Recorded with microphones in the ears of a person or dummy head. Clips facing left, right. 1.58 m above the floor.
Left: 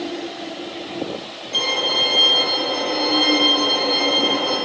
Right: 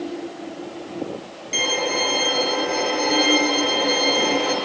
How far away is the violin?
About 6 m.